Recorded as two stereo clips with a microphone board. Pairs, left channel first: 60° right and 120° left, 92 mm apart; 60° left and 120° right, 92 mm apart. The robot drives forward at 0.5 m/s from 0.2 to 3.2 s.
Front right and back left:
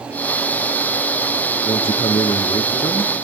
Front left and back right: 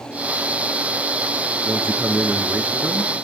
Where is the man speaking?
50° right, 3 m; by 3.1 s 60° right, 2.5 m.